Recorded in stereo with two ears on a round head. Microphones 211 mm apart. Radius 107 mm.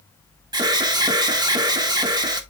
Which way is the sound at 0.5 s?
15° right (ahead or behind).